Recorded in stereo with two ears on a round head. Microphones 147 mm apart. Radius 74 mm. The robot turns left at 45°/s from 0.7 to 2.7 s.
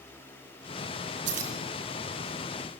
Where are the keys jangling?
80° right, 3.5 m; by 1.6 s 75° right (ahead or behind), 3.5 m.